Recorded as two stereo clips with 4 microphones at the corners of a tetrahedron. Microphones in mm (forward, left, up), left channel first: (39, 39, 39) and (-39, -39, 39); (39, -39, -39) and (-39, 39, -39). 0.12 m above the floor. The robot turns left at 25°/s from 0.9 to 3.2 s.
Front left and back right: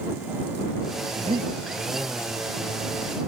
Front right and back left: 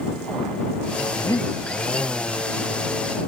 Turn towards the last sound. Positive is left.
turn(degrees=-155)